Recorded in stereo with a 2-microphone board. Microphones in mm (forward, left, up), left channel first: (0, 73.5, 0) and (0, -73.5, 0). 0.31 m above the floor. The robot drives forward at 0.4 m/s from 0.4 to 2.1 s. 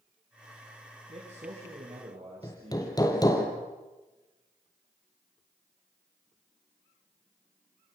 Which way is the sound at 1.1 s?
45° right (ahead or behind).